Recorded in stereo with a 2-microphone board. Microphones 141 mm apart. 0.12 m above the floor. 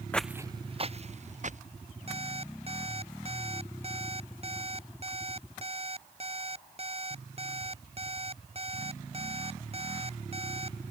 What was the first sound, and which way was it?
Footsteps, 10° left (ahead or behind).